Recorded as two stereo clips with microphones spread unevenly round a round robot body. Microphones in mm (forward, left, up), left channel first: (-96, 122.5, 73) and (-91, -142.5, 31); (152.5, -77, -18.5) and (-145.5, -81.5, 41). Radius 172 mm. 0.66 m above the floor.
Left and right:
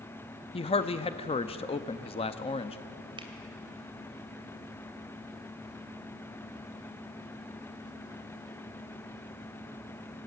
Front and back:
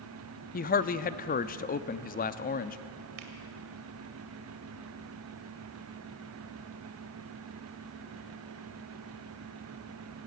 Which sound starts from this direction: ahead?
A man speaking, at 0.5 s.